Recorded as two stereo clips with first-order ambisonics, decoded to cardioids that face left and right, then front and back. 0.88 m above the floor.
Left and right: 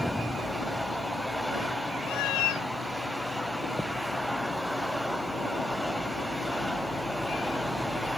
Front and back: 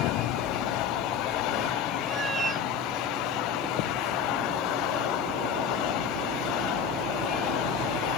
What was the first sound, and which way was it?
A cat meowing, 110° left.